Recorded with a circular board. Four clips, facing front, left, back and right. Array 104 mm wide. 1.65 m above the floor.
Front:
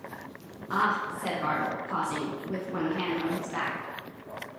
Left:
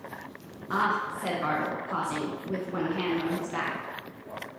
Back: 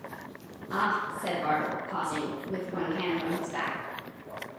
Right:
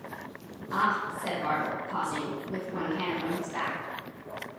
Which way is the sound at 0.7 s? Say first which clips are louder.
Left 1 dB, front 1 dB; 50° left.